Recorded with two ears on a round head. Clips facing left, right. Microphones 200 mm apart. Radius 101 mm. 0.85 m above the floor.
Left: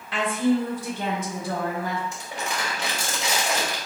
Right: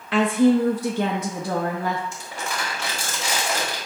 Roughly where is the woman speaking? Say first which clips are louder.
Right 5 dB; right.